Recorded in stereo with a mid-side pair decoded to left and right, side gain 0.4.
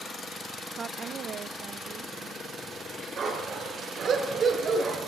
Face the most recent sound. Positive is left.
turn(degrees=-55)